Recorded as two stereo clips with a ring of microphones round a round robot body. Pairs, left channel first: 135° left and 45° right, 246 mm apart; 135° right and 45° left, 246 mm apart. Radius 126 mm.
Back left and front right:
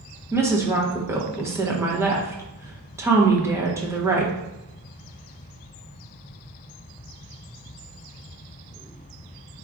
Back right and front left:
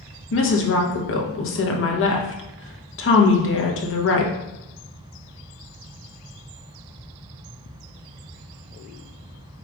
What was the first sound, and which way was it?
A woman speaking, 120° right.